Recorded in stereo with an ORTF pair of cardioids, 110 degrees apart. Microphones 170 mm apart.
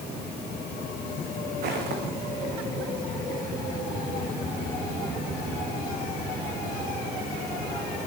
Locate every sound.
1.6 s footsteps: 70° right, 6.5 m